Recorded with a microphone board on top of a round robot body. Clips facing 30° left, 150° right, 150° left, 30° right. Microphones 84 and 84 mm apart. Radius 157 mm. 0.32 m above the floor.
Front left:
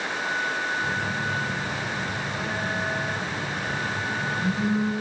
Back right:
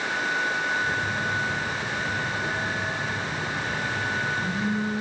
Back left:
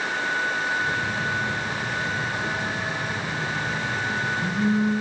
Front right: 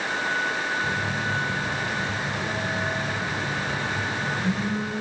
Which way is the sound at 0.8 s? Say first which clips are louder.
Back right 1 dB, back left 1 dB; 70° left.